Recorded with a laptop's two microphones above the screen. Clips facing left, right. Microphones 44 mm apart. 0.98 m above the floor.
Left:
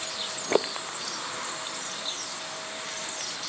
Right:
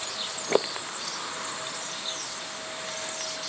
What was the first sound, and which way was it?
Only background noise.